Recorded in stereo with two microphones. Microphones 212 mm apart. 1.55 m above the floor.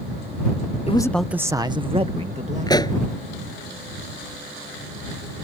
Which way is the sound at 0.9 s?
30° left (ahead or behind).